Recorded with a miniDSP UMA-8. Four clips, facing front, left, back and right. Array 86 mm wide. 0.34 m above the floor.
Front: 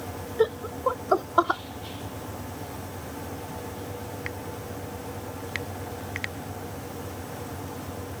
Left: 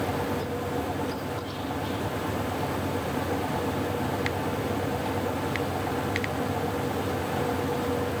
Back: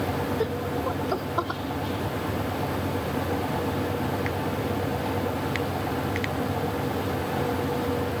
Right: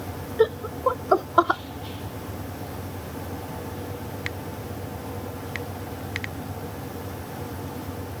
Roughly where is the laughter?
Ahead right.